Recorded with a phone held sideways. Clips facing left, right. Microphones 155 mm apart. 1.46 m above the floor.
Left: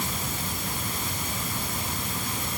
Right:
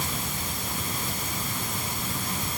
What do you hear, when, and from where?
Only background noise.